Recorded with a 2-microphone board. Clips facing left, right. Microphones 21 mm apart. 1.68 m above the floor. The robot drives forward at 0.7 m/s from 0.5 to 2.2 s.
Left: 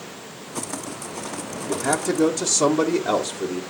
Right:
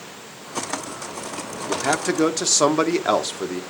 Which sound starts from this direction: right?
A man speaking, at 1.7 s.